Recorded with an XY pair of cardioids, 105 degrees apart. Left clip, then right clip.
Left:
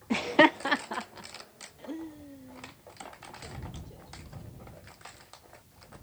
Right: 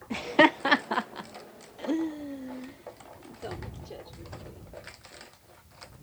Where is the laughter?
40° left; by 4.6 s 70° right.